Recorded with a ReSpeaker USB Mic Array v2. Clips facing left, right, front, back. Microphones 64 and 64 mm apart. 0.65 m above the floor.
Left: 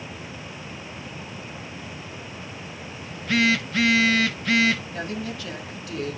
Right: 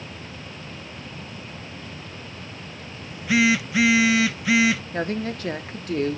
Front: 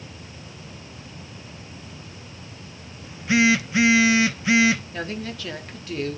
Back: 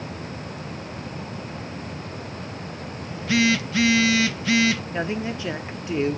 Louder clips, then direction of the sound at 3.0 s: Right 2 dB, front 2 dB; 20° right.